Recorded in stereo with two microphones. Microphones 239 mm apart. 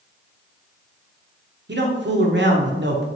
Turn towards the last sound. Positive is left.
turn(degrees=-50)  # may be behind; listen again after turning